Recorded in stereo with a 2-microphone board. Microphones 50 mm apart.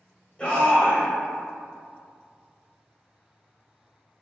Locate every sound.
0.4 s a shout: 25° left (ahead or behind), 1.0 m